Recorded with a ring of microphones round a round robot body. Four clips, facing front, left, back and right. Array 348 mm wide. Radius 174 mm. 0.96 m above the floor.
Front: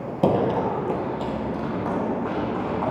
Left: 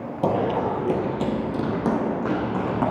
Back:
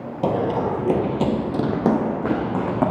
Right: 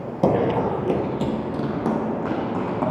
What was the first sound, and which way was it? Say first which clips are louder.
Running footsteps: right 3 dB, even; 55° right.